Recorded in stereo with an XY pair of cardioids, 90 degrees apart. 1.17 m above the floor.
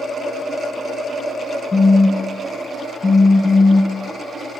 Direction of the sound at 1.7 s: 30° left.